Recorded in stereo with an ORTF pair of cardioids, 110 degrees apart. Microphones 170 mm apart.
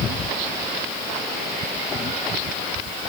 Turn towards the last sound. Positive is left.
No sound to turn to.